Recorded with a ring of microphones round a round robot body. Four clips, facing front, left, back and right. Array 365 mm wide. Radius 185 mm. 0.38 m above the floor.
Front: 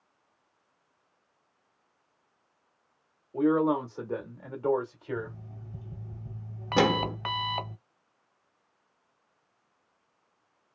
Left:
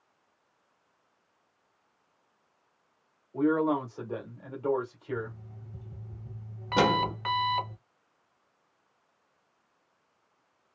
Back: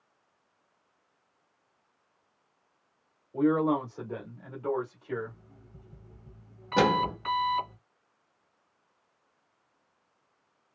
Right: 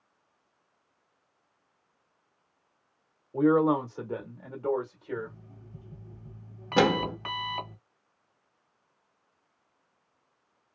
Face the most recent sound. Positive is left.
turn(degrees=-50)